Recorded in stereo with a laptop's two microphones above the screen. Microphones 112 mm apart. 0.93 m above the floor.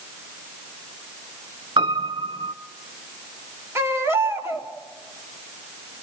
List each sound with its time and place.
1.8 s a piano: 45° right (ahead or behind), 1.4 m
3.8 s a baby crying: 20° right (ahead or behind), 1.7 m